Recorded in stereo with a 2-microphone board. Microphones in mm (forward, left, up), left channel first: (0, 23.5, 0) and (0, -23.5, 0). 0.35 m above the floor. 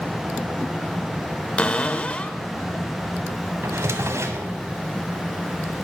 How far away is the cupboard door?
About 0.8 m.